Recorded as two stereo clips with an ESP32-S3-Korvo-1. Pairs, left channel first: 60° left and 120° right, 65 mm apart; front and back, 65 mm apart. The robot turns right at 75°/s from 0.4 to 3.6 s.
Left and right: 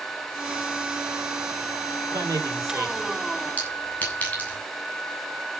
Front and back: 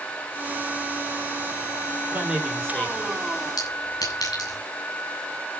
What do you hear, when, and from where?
2.1 s a man speaking: 120° right, 6 m; by 3.5 s 20° right, 6 m
3.6 s a clink: 10° right, 8 m; by 4.6 s 5° right, 8 m